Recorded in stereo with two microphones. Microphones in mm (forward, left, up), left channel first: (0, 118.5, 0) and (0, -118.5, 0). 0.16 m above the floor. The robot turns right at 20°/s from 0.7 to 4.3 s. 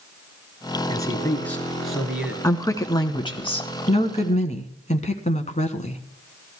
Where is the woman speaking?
20° left, 1.2 m; by 6.0 s 55° left, 1.2 m.